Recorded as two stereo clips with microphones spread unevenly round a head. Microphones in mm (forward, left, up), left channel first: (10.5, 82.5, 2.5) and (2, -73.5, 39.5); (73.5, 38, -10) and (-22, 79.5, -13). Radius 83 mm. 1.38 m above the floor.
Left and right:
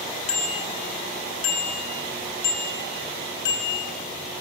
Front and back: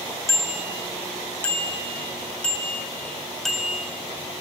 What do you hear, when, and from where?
0.3 s a bicycle bell: 35° left, 4 m; by 4.0 s 65° left, 3.5 m